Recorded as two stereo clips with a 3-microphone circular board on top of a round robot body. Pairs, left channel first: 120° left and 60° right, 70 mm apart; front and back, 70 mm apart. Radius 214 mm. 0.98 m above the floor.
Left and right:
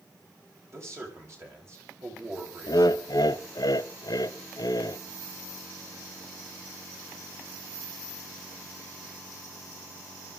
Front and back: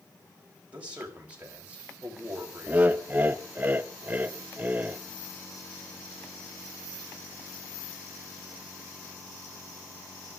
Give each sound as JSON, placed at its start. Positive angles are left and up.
{"t": 0.7, "sound": "a man speaking", "azimuth_deg": -110, "distance_m": 5.5}
{"t": 2.7, "sound": "laughter", "azimuth_deg": 120, "distance_m": 1.2}